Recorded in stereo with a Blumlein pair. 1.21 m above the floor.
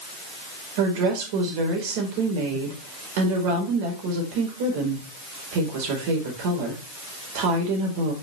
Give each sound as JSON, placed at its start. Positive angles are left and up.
{"t": 0.8, "sound": "a woman speaking", "azimuth_deg": -50, "distance_m": 4.5}